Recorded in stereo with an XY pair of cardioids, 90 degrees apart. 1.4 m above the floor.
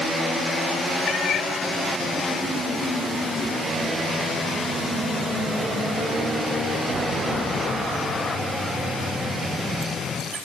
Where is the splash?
No splash in this recording.